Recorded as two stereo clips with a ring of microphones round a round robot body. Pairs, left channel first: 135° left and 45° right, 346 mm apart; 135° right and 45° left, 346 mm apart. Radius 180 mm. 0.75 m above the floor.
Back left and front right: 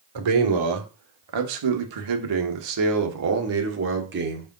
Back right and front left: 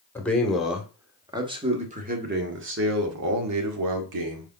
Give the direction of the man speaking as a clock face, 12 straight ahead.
2 o'clock.